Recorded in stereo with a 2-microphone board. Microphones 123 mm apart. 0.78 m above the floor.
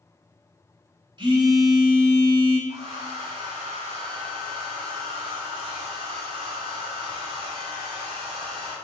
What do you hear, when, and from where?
1.2 s a phone buzzing: 40° right (ahead or behind), 1.2 m
2.7 s a hair dryer: 50° right (ahead or behind), 1.4 m